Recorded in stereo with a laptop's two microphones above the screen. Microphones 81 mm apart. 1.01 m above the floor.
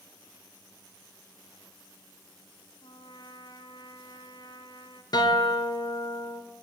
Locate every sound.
2.8 s a trumpet: 75° left (ahead or behind), 2.5 m
5.1 s a guitar: 55° left (ahead or behind), 2.5 m